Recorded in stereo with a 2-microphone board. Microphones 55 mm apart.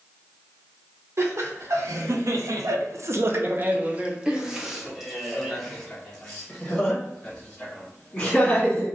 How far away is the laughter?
About 1.2 m.